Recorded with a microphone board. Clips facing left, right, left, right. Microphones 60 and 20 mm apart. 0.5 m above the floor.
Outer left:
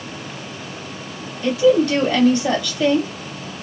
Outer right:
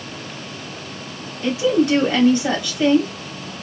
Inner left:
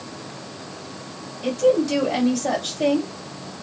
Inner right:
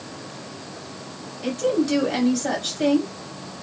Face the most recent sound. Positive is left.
turn(degrees=-25)  # may be behind; listen again after turning